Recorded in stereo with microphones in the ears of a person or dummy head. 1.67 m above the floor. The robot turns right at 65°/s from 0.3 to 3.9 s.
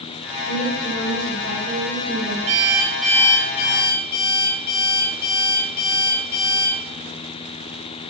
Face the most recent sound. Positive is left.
turn(degrees=55)